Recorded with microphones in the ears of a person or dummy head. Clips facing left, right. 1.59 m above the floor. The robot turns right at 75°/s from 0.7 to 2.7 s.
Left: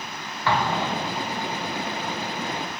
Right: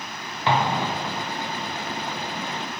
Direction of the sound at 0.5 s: 25° right.